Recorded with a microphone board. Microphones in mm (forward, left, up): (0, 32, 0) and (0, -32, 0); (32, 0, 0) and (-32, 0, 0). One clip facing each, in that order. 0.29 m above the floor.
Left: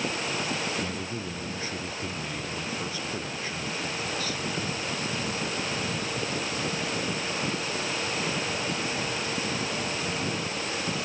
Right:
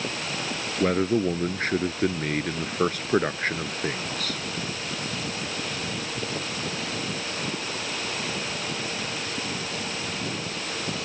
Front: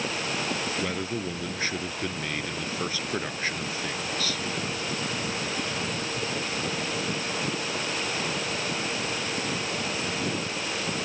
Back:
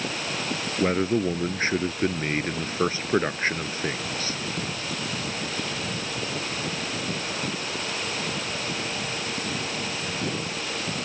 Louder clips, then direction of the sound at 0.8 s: Right 11 dB, back 7 dB; 125° right.